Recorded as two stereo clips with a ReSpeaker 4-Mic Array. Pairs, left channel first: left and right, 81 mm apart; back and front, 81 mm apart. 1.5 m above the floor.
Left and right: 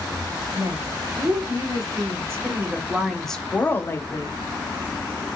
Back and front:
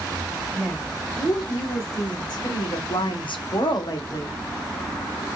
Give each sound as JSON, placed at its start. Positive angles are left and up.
{"t": 0.5, "sound": "a woman speaking", "azimuth_deg": -125, "distance_m": 2.5}